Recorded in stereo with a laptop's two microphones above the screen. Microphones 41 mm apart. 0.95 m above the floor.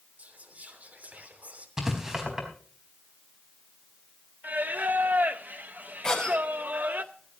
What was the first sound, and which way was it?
Whispering, 35° right (ahead or behind).